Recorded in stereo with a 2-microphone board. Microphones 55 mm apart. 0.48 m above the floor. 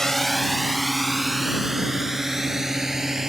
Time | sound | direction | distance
0.0 | a drone | 5° left (ahead or behind) | ?